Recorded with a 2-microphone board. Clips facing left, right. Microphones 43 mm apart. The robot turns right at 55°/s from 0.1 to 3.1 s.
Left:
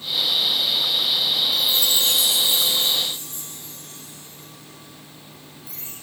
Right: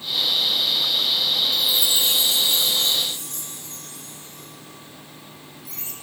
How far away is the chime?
About 2.5 m.